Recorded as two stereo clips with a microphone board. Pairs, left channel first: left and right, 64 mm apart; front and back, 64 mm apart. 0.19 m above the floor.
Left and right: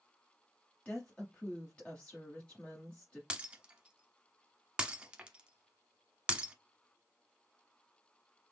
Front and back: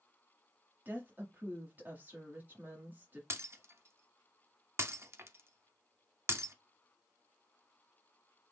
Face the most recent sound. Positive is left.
turn(degrees=-160)